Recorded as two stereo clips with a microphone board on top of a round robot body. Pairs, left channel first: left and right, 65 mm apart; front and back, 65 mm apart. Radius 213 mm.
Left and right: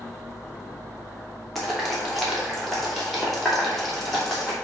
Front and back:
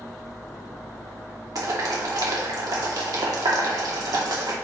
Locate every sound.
1.6 s boiling: 175° left, 2.5 m